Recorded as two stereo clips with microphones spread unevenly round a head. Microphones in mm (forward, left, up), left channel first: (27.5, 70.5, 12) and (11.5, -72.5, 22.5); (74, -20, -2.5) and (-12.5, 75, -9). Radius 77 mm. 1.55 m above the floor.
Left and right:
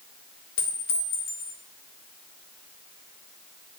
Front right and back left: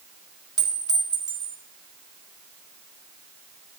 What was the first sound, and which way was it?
A clink, 75° left.